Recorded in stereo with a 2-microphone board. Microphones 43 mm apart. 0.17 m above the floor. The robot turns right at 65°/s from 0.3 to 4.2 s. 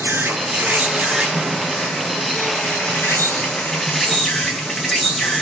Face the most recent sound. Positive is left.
turn(degrees=175)